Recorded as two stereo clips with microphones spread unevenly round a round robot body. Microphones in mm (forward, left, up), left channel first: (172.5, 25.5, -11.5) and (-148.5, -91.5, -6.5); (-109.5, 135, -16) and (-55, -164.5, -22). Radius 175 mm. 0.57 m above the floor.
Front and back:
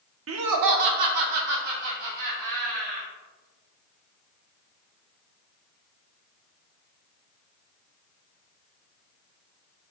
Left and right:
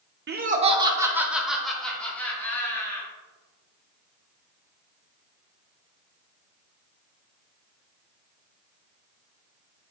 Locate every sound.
0.3 s laughter: 120° right, 1.0 m; by 3.1 s straight behind, 3.5 m